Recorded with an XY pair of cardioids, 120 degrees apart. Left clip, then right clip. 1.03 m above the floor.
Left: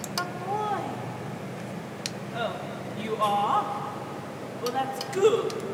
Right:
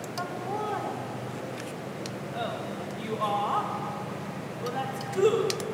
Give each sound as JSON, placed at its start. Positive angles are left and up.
{"t": 0.2, "sound": "laughter", "azimuth_deg": 40, "distance_m": 0.7}